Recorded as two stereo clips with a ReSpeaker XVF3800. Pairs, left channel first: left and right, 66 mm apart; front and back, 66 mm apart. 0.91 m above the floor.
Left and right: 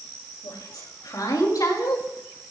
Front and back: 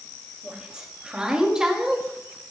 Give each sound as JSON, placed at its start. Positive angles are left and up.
{"t": 0.4, "sound": "a woman speaking", "azimuth_deg": 105, "distance_m": 5.0}